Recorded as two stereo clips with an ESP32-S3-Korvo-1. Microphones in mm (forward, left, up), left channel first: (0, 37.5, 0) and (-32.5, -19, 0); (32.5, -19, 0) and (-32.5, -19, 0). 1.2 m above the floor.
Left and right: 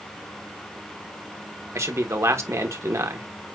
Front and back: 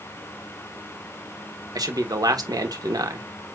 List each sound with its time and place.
1.8 s a man speaking: 160° right, 1.5 m